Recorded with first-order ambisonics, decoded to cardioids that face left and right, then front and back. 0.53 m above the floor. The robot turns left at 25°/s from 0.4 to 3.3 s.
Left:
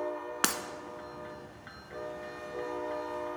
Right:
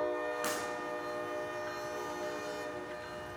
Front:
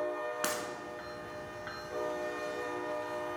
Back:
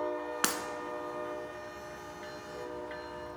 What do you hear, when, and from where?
0.4 s breaking glass: 120° left, 0.7 m; by 0.6 s 115° left, 0.7 m